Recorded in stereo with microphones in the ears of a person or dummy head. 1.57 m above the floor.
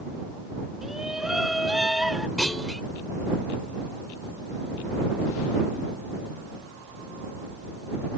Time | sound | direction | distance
0.8 | a shout | 5° right (ahead or behind) | ?
2.4 | a clunk | 5° left (ahead or behind) | ?